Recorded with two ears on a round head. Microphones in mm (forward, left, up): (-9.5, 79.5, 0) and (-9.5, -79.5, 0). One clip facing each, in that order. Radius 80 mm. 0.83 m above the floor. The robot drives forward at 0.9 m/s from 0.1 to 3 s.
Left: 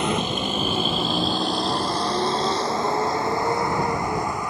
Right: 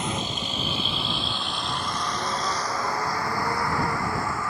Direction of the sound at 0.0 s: 55° left (ahead or behind).